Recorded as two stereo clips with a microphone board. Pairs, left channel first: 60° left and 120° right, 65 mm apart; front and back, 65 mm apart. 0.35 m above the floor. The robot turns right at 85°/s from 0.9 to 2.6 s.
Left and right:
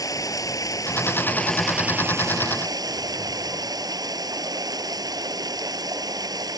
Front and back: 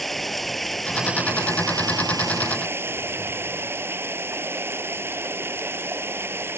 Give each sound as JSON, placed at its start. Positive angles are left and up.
{"t": 0.0, "sound": "running water", "azimuth_deg": 85}